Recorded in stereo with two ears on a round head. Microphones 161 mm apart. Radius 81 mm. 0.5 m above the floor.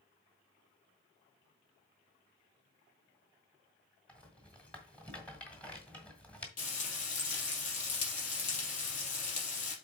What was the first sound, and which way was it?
A rattle, 5° left (ahead or behind).